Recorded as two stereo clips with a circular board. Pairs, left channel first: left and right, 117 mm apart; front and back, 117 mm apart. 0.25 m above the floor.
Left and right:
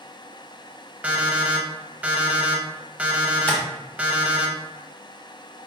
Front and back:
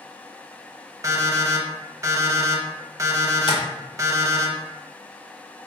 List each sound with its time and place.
1.0 s an alarm clock: 155° right, 0.6 m
3.5 s tapping: 15° left, 0.9 m